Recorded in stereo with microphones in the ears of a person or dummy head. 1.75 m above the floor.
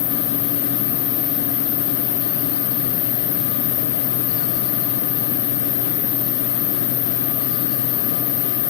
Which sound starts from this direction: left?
An insect, at 0.0 s.